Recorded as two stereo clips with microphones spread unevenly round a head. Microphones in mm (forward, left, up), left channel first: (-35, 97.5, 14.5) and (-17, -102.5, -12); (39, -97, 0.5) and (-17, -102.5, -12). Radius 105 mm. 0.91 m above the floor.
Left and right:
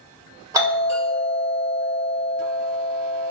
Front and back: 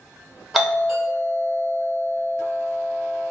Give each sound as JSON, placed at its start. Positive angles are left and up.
{"t": 0.5, "sound": "a doorbell", "azimuth_deg": -110, "distance_m": 1.4}